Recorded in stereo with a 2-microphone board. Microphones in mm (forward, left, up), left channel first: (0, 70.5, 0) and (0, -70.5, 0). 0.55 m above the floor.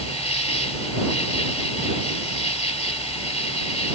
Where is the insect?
45° left (ahead or behind).